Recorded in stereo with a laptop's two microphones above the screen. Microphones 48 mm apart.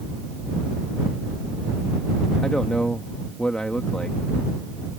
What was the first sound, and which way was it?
A man speaking, 20° left (ahead or behind).